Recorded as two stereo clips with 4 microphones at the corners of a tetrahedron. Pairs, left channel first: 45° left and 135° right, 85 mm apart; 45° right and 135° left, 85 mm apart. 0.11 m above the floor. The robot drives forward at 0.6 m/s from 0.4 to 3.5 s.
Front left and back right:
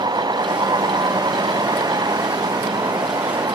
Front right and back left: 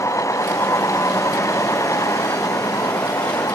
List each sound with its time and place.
0.0 s a vehicle: 100° right; by 3.5 s 95° right